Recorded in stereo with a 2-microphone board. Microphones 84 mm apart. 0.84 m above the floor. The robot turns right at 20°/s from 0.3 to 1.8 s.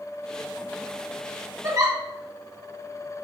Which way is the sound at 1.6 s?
35° right (ahead or behind).